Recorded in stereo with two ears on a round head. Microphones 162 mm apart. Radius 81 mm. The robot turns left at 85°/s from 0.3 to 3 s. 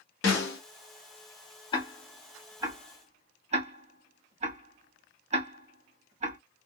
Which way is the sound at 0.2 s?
75° left (ahead or behind).